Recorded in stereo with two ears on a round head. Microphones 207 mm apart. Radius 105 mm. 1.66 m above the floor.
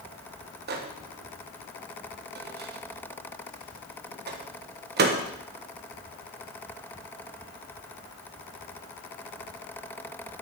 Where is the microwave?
45° right (ahead or behind), 1.2 m.